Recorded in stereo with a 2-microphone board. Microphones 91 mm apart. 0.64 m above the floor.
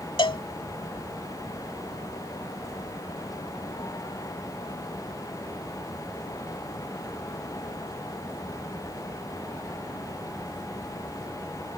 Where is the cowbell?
70° left (ahead or behind).